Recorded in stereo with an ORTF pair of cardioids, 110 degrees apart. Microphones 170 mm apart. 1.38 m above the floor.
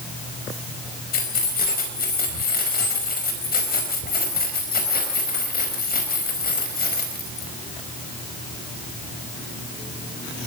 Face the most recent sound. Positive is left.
turn(degrees=60)